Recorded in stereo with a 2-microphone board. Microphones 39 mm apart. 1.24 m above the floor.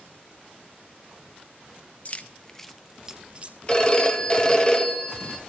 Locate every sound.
2.0 s keys jangling: 40° left (ahead or behind), 0.5 m; by 3.6 s 30° right (ahead or behind), 0.7 m
3.7 s a phone ringing: 20° left (ahead or behind), 0.9 m